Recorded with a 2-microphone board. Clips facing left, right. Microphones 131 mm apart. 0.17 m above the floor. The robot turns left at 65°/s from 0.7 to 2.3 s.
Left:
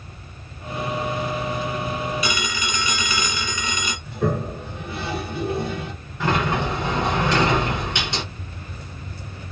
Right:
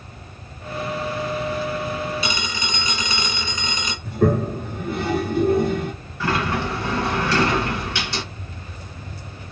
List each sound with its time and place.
2.2 s a phone ringing: 30° right (ahead or behind), 1.4 m; by 4.0 s 25° right (ahead or behind), 1.4 m
4.0 s a toilet flushing: 55° right (ahead or behind), 0.9 m
6.2 s a sliding door: 20° left (ahead or behind), 1.5 m